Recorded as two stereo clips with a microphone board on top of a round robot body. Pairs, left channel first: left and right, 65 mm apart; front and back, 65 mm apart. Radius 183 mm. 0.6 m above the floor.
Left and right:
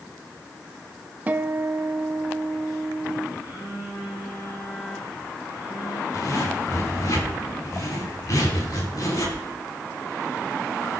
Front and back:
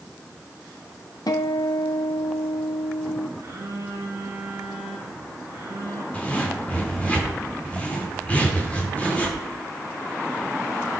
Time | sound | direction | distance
1.3 | a guitar | 25° right | 0.5 m
3.4 | a phone buzzing | 130° left | 7 m
6.1 | a zipper | 65° left | 4 m